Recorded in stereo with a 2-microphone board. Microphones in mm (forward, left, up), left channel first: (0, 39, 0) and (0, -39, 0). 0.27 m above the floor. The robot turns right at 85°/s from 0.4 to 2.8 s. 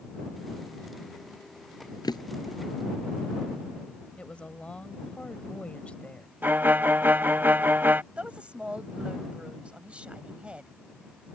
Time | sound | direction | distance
2.0 | a drawer | 60° left (ahead or behind) | ?
4.2 | a woman speaking | 15° left (ahead or behind) | ?
6.4 | a violin | 25° right (ahead or behind) | ?
8.2 | a woman speaking | 15° right (ahead or behind) | ?